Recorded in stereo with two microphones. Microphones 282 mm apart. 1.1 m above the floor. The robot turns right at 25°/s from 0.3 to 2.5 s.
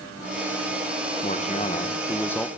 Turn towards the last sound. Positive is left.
turn(degrees=175)